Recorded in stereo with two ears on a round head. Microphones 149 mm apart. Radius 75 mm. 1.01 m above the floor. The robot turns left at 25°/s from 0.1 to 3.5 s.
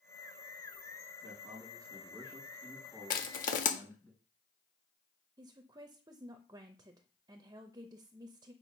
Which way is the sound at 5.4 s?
20° right (ahead or behind).